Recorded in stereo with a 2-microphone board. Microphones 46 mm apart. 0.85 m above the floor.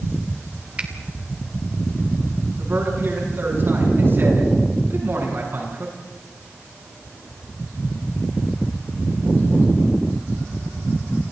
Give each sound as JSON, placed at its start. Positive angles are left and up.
{"t": 0.8, "sound": "a finger snap", "side_deg": -25, "distance_m": 2.5}
{"t": 2.6, "sound": "a man speaking", "side_deg": -45, "distance_m": 8.0}